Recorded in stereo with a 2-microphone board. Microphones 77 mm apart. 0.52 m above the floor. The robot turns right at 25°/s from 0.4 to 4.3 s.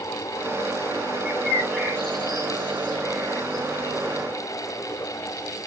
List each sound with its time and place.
1.2 s a bird: 15° right (ahead or behind), 7.5 m; by 4.0 s 55° left (ahead or behind), 7.5 m